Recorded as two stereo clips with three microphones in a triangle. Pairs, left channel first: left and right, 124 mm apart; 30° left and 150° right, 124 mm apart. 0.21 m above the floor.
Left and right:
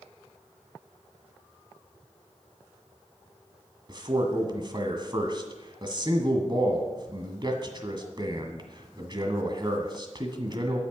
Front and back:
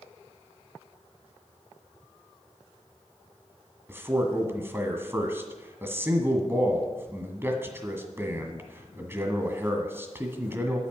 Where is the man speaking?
90° right, 1.6 m.